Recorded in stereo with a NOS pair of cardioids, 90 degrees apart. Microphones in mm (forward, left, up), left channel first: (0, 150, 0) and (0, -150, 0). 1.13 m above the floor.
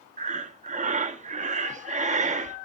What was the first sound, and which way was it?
Breathing, 25° right.